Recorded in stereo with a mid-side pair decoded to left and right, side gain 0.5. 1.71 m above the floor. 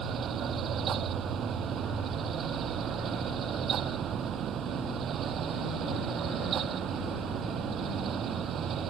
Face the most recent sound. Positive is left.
turn(degrees=-55)